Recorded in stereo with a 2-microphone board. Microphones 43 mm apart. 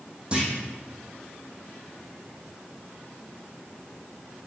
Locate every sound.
0.3 s a clunk: 30° right (ahead or behind), 3 m